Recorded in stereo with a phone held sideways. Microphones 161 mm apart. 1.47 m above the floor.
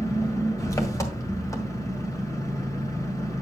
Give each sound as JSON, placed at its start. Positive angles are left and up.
{"t": 0.0, "sound": "an engine running", "side_deg": 20, "distance_m": 1.6}